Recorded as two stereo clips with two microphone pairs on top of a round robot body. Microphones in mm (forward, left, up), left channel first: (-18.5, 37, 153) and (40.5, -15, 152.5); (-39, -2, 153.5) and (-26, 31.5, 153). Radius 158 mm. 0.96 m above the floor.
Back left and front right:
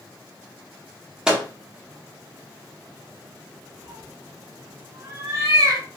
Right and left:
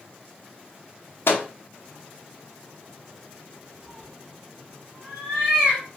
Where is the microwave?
125° right, 0.7 m.